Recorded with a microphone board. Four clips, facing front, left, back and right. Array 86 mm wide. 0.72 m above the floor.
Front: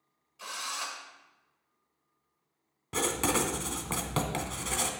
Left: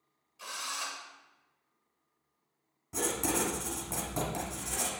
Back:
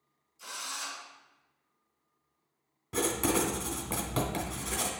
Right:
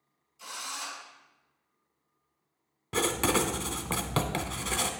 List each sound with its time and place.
0.4 s a drill: 30° left, 1.6 m
2.9 s writing: 70° right, 0.9 m